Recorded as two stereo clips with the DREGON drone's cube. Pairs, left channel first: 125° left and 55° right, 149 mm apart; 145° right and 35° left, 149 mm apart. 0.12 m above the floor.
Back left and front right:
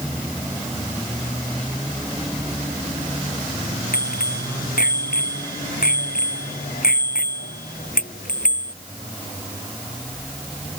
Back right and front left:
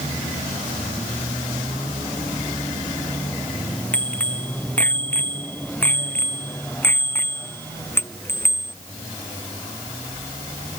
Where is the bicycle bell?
135° left; by 8.8 s 140° left.